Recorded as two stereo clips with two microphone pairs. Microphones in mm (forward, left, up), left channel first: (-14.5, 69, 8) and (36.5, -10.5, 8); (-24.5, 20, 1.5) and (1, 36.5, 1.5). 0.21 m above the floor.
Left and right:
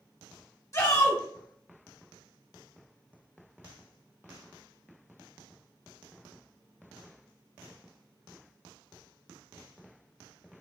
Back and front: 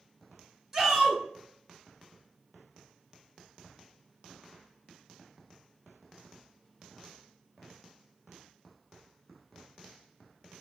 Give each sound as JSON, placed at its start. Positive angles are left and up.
{"t": 0.7, "sound": "a shout", "azimuth_deg": 100, "distance_m": 1.6}